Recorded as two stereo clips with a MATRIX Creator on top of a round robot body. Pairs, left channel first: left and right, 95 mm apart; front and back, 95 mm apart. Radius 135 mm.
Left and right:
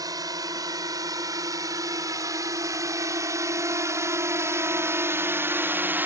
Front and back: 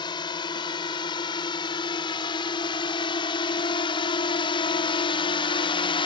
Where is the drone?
40° right; by 6.1 s 20° right.